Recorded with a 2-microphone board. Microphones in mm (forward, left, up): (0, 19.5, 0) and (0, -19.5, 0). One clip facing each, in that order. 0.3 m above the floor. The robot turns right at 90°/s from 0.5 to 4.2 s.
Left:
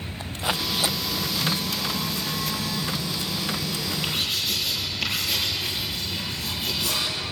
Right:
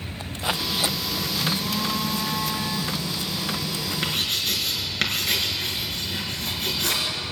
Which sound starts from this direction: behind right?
A phone buzzing, at 1.4 s.